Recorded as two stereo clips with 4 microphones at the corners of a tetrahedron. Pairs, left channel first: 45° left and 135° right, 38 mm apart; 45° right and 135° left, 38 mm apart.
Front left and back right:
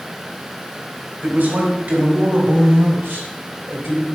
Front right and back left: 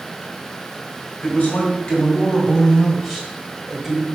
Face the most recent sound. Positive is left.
turn(degrees=-150)